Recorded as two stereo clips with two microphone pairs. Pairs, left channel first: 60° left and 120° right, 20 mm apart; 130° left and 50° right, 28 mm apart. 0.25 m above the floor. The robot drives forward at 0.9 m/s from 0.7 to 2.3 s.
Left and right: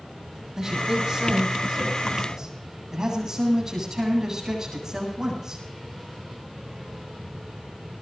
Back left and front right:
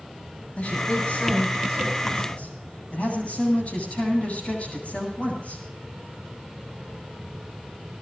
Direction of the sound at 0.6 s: 175° left.